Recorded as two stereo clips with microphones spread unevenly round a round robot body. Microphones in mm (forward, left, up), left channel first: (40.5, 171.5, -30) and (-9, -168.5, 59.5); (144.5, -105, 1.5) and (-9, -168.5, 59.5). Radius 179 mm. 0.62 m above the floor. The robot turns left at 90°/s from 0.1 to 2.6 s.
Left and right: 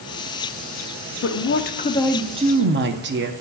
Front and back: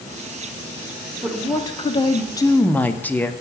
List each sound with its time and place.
1.2 s a woman speaking: 90° left, 0.7 m; by 3.3 s 35° right, 0.7 m